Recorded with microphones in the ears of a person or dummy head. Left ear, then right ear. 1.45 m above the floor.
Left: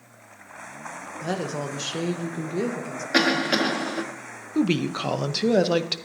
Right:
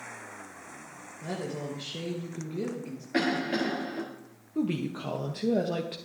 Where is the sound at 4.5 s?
50° left (ahead or behind), 0.7 m.